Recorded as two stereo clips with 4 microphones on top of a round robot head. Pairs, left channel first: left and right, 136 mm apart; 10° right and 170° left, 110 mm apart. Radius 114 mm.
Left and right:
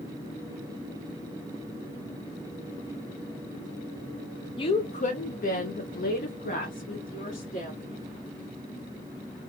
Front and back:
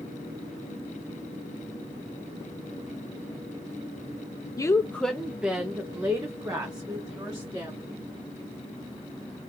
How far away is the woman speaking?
About 0.6 m.